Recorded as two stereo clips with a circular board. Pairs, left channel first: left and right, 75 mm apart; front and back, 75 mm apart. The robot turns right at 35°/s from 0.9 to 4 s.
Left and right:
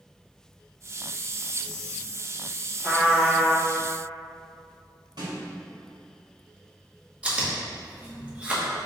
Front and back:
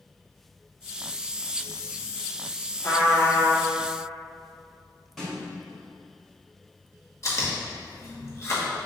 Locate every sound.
2.8 s a trumpet: 45° right, 1.2 m; by 3.7 s 15° right, 1.2 m
5.2 s a snare drum: 85° right, 1.6 m
7.2 s chewing: 25° right, 0.9 m